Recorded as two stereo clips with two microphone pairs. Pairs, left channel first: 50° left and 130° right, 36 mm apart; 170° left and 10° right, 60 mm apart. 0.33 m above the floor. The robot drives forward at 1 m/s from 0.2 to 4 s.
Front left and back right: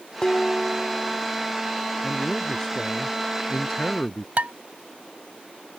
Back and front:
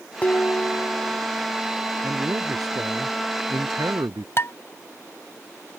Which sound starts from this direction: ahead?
A man speaking, at 2.0 s.